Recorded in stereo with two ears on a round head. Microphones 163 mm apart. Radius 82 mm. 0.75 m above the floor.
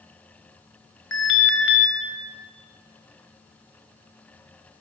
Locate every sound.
1.1 s an alarm: 80° left, 4 m